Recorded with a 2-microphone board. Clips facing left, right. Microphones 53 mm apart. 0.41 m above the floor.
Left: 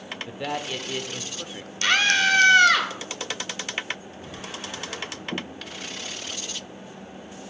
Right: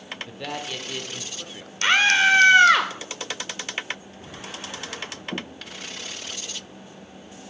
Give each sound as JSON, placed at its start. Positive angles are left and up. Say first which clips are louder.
{"t": 0.3, "sound": "a man speaking", "louder": "left 4 dB", "side_deg": 10, "distance_m": 0.7}
{"t": 1.8, "sound": "a scream", "louder": "right 3 dB", "side_deg": -25, "distance_m": 1.5}